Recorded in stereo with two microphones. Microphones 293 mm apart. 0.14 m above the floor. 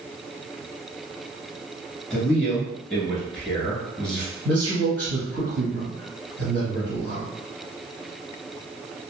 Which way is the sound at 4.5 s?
45° right (ahead or behind).